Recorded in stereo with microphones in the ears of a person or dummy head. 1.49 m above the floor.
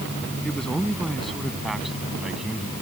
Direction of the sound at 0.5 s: Centre (ahead or behind).